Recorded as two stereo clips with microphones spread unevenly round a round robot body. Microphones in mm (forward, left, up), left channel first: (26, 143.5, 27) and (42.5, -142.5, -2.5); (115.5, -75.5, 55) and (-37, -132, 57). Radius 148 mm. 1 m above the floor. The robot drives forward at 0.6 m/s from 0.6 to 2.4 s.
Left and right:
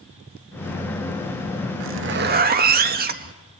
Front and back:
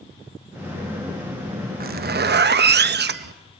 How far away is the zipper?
About 0.7 m.